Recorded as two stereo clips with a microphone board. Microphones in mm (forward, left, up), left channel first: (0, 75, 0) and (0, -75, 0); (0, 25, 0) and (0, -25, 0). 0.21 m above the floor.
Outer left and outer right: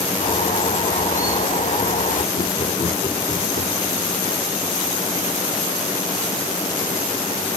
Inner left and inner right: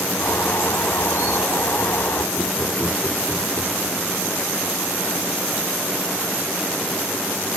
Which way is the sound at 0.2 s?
70° left (ahead or behind).